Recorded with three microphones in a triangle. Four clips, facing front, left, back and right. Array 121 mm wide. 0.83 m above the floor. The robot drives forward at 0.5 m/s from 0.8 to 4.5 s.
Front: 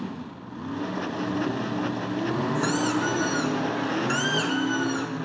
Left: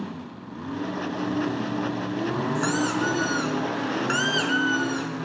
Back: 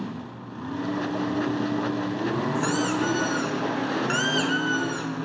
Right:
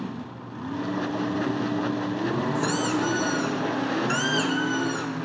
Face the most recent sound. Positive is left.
turn(degrees=120)